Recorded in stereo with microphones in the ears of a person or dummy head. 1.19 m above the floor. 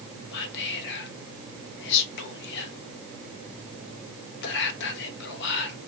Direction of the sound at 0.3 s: 65° left (ahead or behind).